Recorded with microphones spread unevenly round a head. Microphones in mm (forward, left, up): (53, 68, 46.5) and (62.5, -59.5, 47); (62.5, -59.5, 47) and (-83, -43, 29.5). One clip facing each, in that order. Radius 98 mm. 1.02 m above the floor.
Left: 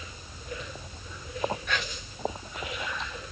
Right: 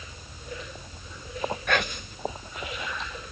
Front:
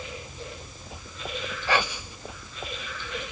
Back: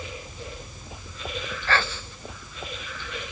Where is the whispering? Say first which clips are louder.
Right 6 dB, front 1 dB; 85° right.